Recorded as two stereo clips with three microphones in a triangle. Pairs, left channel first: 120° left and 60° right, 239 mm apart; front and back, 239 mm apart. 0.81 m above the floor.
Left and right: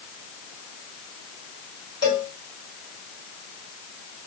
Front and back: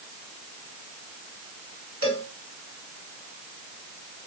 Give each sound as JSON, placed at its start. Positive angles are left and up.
{"t": 2.0, "sound": "a cowbell", "azimuth_deg": -170, "distance_m": 1.9}